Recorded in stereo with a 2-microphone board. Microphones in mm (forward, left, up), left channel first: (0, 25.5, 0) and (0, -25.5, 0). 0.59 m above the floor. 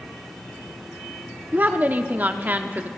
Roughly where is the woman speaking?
Right.